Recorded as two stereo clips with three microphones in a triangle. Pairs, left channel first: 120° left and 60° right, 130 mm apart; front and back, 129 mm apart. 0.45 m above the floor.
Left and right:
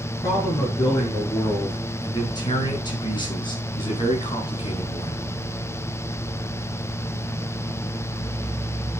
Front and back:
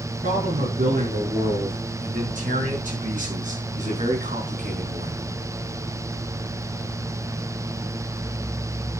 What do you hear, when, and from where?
0.2 s a man speaking: 175° right, 6 m; by 5.2 s 160° left, 3.5 m